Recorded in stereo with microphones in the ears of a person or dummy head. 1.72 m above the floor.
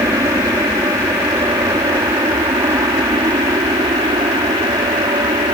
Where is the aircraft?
15° right (ahead or behind); by 5.5 s 20° right (ahead or behind).